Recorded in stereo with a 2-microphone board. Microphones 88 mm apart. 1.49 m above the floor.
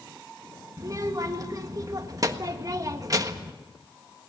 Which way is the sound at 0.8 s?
40° right (ahead or behind).